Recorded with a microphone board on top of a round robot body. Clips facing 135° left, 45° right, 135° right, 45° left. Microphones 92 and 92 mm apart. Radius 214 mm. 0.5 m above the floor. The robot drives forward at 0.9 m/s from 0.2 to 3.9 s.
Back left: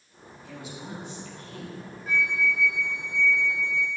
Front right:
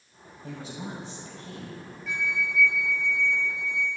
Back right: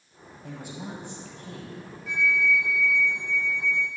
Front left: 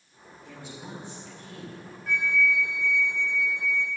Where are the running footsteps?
No running footsteps in this recording.